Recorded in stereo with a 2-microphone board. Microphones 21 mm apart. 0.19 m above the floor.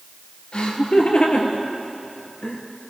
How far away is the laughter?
About 4 m.